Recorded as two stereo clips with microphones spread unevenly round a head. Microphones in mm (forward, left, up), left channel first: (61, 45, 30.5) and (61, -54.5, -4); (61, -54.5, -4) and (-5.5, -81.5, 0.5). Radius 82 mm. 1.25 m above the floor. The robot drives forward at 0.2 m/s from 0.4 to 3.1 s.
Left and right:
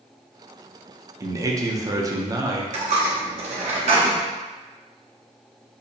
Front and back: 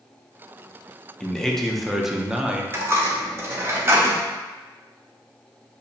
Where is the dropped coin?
115° right, 0.7 m; by 4.2 s 125° right, 0.7 m.